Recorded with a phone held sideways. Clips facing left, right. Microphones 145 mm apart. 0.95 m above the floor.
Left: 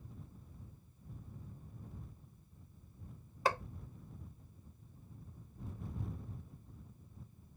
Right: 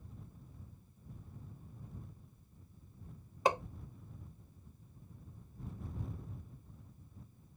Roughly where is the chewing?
No chewing in this recording.